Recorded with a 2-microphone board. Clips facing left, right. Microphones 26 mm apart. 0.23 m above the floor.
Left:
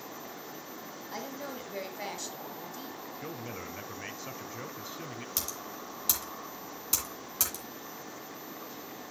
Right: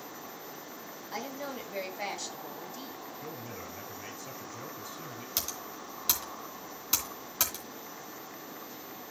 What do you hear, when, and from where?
1.1 s a woman speaking: 10° right (ahead or behind), 2 m
3.2 s a man speaking: 25° left (ahead or behind), 1.5 m
5.4 s typing on a keyboard: 20° right (ahead or behind), 2.5 m